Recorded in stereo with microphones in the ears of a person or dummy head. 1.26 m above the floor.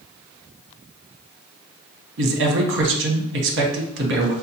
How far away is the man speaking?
About 0.8 m.